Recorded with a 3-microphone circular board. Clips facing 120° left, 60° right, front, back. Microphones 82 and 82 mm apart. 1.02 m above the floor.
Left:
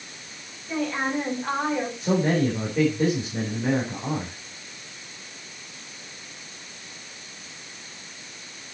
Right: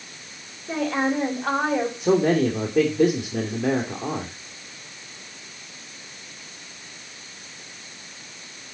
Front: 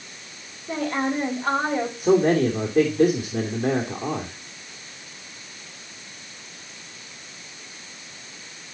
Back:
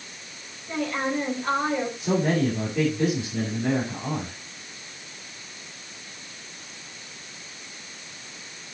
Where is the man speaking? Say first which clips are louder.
Right 3 dB, front 7 dB; 40° right, 2.5 m.